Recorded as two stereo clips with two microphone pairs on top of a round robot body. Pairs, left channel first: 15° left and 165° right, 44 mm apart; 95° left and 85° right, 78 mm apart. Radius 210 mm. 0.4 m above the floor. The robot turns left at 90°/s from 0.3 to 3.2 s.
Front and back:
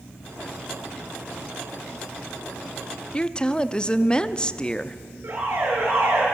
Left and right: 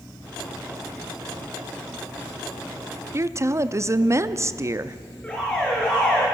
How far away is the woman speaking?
About 1.1 m.